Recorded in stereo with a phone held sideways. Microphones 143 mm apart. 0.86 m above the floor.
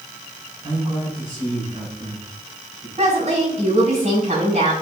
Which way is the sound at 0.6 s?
30° right (ahead or behind).